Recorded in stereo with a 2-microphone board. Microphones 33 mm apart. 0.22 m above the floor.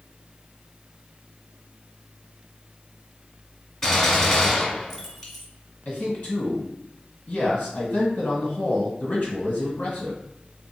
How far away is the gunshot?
About 1.2 m.